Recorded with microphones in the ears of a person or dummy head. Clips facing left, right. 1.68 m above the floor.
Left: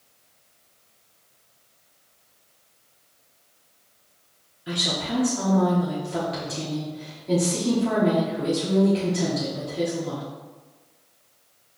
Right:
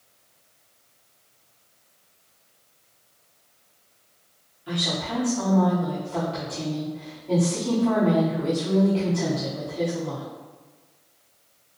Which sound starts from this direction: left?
A woman speaking, at 4.7 s.